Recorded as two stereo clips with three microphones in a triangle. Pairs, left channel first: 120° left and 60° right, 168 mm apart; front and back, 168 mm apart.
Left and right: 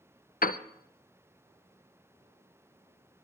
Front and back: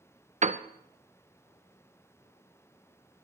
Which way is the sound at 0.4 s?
140° left.